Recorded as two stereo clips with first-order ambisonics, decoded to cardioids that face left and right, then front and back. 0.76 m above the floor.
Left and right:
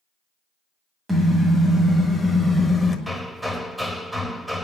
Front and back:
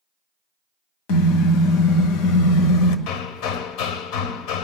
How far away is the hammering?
About 1.0 m.